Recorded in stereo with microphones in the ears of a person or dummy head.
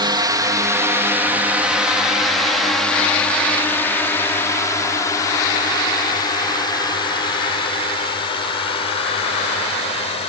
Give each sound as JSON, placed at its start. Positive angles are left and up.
{"t": 0.0, "sound": "a drone", "side_deg": -20}